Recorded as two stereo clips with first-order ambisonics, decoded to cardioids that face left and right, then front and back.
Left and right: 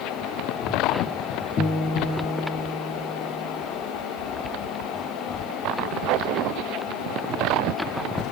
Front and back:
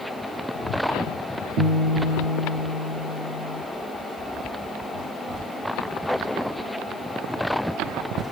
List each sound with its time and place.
1.6 s a guitar: 145° left, 1.5 m